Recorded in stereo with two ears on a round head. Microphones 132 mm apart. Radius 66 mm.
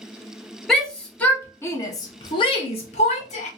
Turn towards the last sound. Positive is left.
turn(degrees=50)  # may be behind; listen again after turning